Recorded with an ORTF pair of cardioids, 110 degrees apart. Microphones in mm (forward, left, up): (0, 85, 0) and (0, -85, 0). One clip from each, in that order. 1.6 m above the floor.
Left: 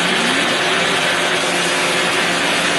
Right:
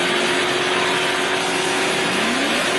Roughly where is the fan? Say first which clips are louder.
Left 3 dB; ahead left.